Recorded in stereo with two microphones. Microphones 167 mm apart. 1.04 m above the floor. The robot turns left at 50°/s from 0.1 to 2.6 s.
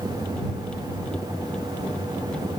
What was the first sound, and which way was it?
Only background noise.